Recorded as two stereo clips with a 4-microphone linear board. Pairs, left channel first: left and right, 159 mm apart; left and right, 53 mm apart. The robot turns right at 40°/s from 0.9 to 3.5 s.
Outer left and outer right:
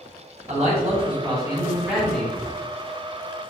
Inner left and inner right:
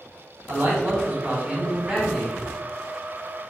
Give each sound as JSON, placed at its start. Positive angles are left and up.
{"t": 0.5, "sound": "a man speaking", "azimuth_deg": -45, "distance_m": 1.1}